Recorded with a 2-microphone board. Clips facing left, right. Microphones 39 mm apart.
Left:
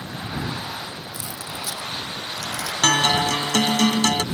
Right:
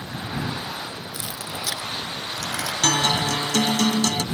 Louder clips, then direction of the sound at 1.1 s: Right 1 dB; 80° right.